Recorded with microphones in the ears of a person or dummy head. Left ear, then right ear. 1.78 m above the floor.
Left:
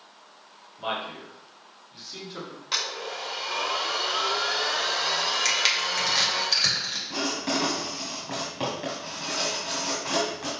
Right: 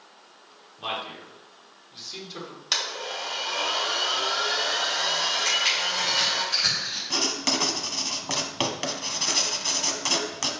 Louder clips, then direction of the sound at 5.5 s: Even; 50° left (ahead or behind).